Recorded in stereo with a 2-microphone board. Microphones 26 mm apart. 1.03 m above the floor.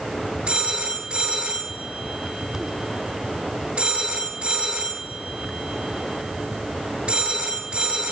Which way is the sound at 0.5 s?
55° right (ahead or behind).